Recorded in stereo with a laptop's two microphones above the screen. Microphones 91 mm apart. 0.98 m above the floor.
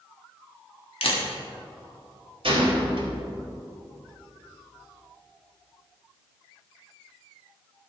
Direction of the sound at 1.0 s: 70° left (ahead or behind).